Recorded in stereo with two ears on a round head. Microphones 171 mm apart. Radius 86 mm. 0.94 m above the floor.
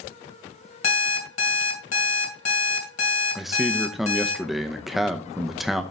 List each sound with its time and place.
0.8 s an alarm clock: 70° left (ahead or behind), 2.5 m
3.4 s a man speaking: centre (ahead or behind), 0.7 m